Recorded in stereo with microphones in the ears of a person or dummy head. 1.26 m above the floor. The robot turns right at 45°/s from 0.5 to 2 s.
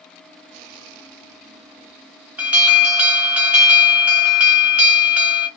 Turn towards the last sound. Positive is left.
turn(degrees=-5)  # may be behind; listen again after turning